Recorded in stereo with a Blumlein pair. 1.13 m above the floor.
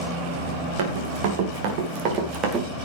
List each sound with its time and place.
0.8 s running footsteps: 50° right, 3.5 m; by 2.6 s 30° right, 4 m